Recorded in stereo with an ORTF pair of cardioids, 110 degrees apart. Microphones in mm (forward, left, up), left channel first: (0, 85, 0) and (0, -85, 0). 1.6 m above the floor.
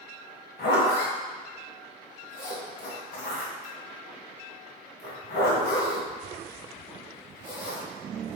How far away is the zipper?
About 1.8 m.